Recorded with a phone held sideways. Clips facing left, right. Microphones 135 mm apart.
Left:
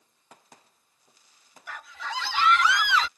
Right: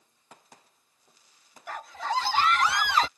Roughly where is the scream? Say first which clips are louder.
Right 6 dB; right.